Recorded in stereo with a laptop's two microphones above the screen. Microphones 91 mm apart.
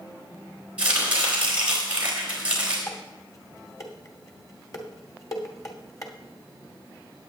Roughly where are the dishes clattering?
Left.